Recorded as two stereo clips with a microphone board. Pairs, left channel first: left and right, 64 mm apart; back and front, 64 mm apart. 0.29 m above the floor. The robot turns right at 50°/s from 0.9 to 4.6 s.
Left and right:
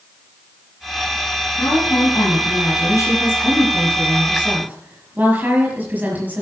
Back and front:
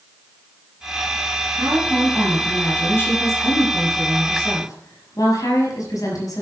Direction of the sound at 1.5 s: 55° left.